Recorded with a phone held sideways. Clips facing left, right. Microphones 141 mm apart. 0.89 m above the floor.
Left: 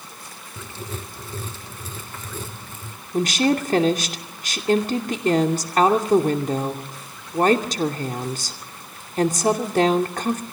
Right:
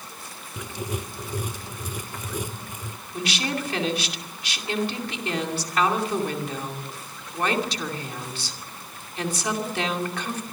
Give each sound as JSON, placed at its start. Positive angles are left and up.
{"t": 0.6, "sound": "writing", "side_deg": -15, "distance_m": 0.8}
{"t": 3.1, "sound": "a woman speaking", "side_deg": 45, "distance_m": 2.5}